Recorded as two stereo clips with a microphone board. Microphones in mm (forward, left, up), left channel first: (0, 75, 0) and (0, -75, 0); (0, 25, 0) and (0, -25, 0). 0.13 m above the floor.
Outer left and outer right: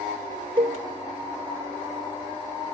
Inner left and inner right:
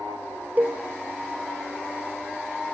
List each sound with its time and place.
0.6 s a cowbell: 35° right (ahead or behind), 0.9 m